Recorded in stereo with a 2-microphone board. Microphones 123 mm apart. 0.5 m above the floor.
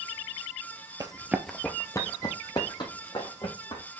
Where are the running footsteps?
35° right (ahead or behind), 0.5 m; by 3.8 s 40° left (ahead or behind), 2 m.